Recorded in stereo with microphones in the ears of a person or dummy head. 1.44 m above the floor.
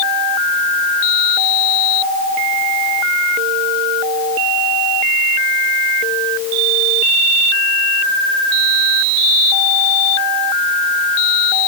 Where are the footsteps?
I don't hear footsteps.